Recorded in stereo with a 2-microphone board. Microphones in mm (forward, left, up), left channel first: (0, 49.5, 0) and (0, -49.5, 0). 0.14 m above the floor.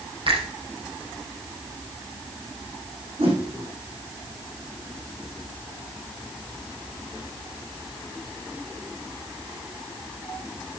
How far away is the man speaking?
No man speaking in this recording.